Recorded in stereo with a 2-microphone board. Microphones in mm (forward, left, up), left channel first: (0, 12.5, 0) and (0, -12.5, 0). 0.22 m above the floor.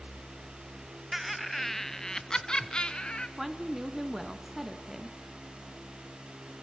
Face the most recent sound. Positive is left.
turn(degrees=-10)  # may be behind; listen again after turning